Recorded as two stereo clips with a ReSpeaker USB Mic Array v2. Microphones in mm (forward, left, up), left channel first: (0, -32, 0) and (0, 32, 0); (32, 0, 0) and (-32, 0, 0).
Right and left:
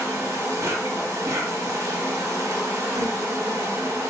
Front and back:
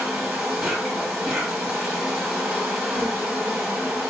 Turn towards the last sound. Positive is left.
turn(degrees=95)